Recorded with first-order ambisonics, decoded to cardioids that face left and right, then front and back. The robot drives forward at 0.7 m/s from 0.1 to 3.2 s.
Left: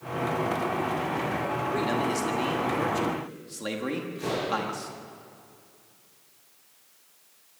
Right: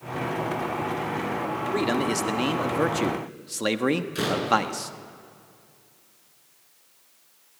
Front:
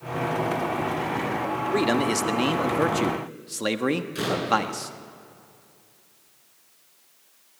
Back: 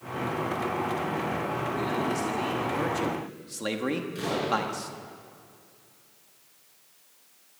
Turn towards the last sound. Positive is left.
turn(degrees=-65)